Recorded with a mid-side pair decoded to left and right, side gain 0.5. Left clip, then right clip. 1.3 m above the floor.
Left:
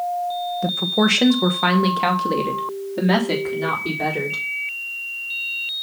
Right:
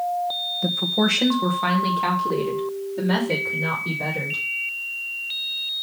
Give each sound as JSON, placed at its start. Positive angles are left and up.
{"t": 0.6, "sound": "a woman speaking", "azimuth_deg": 15, "distance_m": 1.2}